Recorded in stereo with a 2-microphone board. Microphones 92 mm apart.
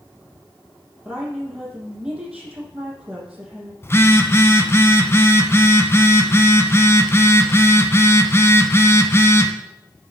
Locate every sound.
1.1 s a woman speaking: 10° right (ahead or behind), 5.5 m
3.8 s a phone buzzing: 30° left (ahead or behind), 1.1 m